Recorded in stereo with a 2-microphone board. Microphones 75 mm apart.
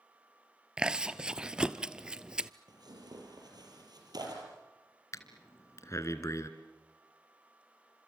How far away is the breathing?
About 1.8 m.